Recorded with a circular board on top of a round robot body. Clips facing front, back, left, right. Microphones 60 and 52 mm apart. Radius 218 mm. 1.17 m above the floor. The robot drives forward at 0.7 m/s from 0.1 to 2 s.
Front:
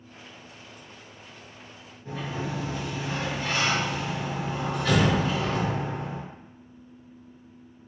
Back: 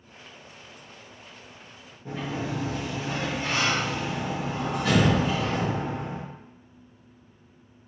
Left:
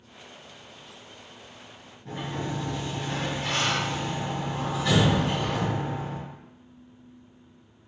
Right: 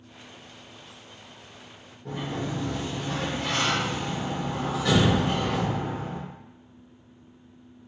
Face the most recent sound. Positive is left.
turn(degrees=-120)